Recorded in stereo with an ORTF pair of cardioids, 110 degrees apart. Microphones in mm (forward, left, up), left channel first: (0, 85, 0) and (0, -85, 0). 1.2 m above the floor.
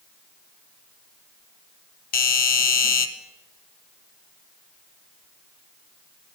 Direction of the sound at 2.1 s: 60° left.